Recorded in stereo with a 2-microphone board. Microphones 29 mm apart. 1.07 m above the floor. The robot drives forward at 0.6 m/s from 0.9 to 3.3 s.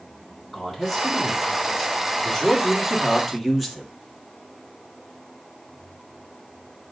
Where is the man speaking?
5° right (ahead or behind), 3 m; by 3.9 s 10° right (ahead or behind), 1.7 m.